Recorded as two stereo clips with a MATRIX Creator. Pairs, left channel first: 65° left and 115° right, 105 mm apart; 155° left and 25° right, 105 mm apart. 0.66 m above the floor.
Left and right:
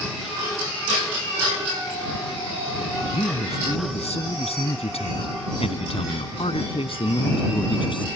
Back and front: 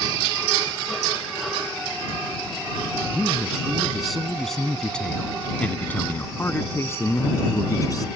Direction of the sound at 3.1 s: 60° left.